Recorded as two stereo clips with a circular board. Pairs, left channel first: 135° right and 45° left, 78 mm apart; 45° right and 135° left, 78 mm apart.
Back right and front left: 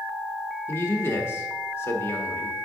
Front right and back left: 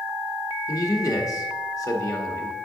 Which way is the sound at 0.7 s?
80° right.